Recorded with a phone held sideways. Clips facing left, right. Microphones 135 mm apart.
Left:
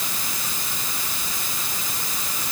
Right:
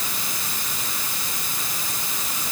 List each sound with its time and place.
Only background noise.